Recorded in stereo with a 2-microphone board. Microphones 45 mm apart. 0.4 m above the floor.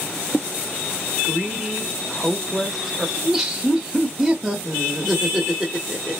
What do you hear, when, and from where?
1.2 s a woman speaking: 5° right (ahead or behind), 0.9 m
3.2 s laughter: 5° right (ahead or behind), 1.0 m